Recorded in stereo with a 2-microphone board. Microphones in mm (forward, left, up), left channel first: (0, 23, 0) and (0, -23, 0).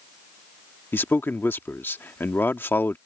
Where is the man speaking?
55° left (ahead or behind).